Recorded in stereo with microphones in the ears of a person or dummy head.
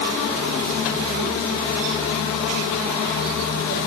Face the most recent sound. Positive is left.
No sound to turn to.